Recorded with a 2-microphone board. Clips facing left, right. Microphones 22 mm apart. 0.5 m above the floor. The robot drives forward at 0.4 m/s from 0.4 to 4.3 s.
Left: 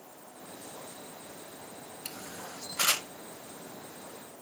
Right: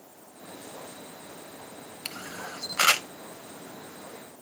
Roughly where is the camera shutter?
Right.